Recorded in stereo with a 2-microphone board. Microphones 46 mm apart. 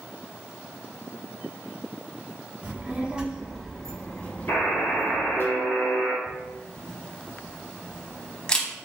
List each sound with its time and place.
2.6 s a child speaking: 40° right (ahead or behind), 1.2 m; by 5.5 s 55° left (ahead or behind), 1.6 m
4.5 s a buzzer: 50° left (ahead or behind), 1.6 m
6.3 s a camera shutter: 15° left (ahead or behind), 0.7 m